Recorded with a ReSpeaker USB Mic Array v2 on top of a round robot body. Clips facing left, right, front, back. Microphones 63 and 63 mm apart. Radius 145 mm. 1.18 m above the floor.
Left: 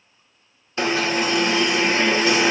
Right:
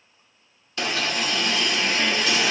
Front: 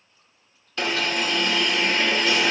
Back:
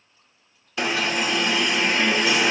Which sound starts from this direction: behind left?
An alarm, at 0.8 s.